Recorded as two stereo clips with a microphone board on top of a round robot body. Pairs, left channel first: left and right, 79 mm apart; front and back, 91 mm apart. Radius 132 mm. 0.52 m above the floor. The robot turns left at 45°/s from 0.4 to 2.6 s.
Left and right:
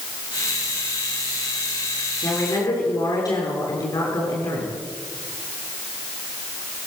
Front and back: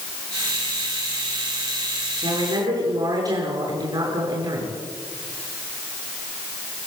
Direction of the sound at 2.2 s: 150° left.